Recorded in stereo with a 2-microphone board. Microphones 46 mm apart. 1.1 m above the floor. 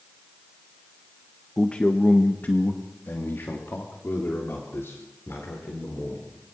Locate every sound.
1.6 s a man speaking: 20° left (ahead or behind), 1.2 m; by 6.4 s 70° left (ahead or behind), 5 m